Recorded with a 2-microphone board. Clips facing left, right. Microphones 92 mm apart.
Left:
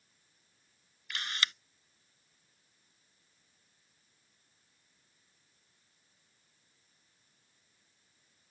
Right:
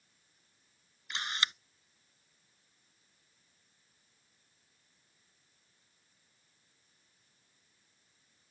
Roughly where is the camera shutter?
Right.